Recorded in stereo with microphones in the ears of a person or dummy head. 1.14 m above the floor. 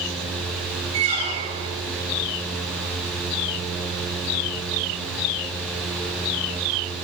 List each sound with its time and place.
0.9 s a squeak: 40° right (ahead or behind), 1.9 m